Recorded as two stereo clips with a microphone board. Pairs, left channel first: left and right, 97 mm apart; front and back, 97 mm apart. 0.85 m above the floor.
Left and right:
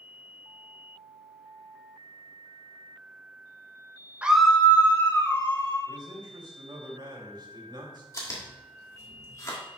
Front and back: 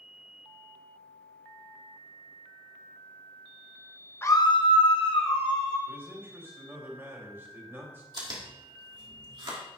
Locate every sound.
4.2 s a scream: 30° right, 0.6 m; by 5.8 s 30° left, 2.5 m
5.9 s a man speaking: 120° right, 2.0 m
8.1 s chewing: 145° left, 1.8 m